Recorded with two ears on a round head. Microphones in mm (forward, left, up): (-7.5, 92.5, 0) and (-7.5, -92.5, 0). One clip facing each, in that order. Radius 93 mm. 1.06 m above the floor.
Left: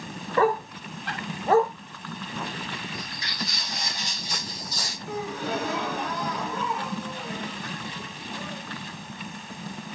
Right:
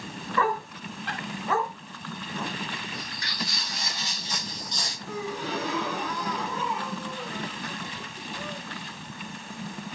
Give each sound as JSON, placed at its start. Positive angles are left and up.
{"t": 0.4, "sound": "a dog barking", "side_deg": 30, "distance_m": 0.9}
{"t": 2.9, "sound": "footsteps", "side_deg": 20, "distance_m": 2.5}
{"t": 5.1, "sound": "a gasp", "side_deg": 45, "distance_m": 1.9}